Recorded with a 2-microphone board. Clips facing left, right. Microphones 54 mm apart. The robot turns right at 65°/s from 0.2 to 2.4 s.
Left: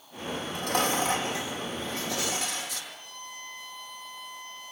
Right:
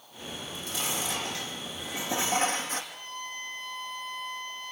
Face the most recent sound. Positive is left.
turn(degrees=-45)  # may be behind; listen again after turning